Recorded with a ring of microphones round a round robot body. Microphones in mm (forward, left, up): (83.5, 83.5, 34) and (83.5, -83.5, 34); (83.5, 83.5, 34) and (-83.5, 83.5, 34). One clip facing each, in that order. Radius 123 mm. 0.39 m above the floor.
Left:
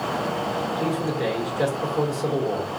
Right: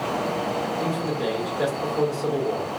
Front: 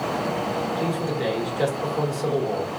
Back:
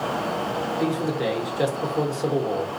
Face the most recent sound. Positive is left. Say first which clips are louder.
# left 1 dB, back 4 dB
turn(degrees=140)